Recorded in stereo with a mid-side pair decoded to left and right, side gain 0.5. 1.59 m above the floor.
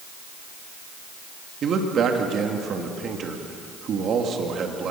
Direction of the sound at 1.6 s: 50° right.